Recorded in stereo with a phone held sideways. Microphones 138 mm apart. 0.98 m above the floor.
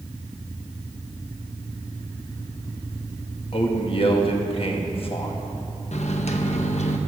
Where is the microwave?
55° left (ahead or behind), 0.7 m.